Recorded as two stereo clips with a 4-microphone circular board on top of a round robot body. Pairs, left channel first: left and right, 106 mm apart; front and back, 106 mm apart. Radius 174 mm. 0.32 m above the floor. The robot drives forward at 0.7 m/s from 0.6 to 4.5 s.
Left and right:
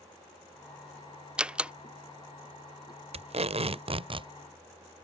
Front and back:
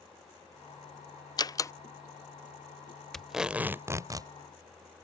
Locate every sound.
1.4 s a door slam: 15° right; by 1.7 s 20° right
3.1 s tape being pulled: 85° right; by 4.3 s 125° right